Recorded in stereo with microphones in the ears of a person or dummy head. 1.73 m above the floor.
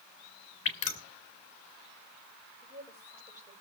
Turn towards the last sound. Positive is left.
turn(degrees=-15)  # may be behind; listen again after turning